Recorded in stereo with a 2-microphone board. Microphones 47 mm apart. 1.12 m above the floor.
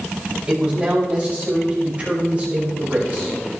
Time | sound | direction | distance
0.5 | a man speaking | 25° right (ahead or behind) | 8.5 m